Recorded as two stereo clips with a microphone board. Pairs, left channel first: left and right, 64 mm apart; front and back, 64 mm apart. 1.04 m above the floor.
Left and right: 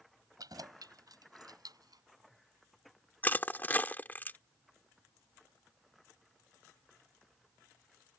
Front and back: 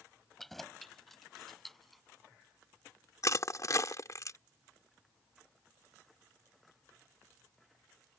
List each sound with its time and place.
0.4 s keys jangling: 85° right; by 2.0 s 90° right
3.2 s crushing: 30° left